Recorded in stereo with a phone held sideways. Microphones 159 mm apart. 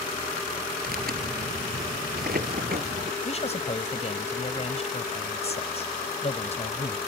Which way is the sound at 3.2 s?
40° left (ahead or behind).